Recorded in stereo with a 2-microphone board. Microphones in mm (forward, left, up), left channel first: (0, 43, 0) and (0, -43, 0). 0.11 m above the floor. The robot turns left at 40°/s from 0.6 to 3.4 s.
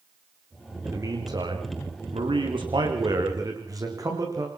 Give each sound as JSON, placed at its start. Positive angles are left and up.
{"t": 0.8, "sound": "a man speaking", "azimuth_deg": -35, "distance_m": 10.0}